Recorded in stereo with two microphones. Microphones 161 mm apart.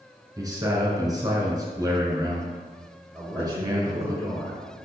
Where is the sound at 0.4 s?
25° right (ahead or behind), 1.1 m.